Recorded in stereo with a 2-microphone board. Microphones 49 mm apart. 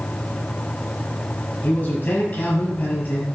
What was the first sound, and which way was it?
A man speaking, 40° left (ahead or behind).